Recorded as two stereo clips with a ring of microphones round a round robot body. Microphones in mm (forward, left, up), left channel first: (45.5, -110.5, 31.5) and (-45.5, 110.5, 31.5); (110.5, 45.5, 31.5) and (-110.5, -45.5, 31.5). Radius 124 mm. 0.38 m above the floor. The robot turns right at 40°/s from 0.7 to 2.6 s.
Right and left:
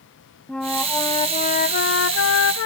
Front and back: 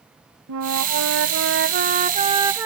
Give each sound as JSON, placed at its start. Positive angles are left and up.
{"t": 0.5, "sound": "a flute", "azimuth_deg": -155}